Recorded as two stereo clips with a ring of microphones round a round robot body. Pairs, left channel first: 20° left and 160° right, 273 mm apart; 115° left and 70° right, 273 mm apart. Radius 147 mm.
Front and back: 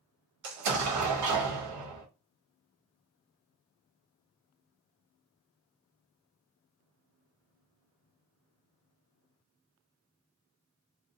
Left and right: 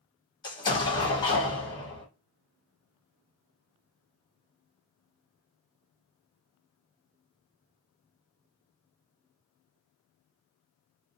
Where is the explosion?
175° right, 0.8 m.